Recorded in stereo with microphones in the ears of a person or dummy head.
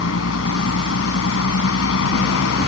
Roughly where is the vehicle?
Left.